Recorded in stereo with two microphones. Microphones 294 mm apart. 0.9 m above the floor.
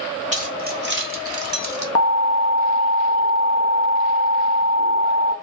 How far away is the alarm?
About 0.7 m.